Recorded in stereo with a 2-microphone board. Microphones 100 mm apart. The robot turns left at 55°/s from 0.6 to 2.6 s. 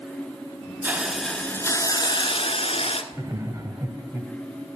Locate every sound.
0.8 s a hiss: 160° right, 1.1 m; by 3.0 s 105° left, 1.1 m
3.1 s laughter: 30° right (ahead or behind), 1.4 m